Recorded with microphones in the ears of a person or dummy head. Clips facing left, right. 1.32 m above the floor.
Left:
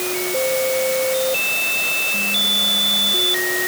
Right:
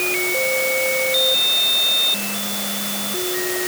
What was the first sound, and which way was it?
Only background noise.